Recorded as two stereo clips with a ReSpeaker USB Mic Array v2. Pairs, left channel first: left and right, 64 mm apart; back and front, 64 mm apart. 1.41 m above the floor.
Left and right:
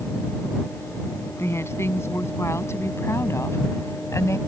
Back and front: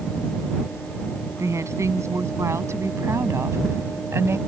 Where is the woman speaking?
40° left; by 4.4 s 45° left.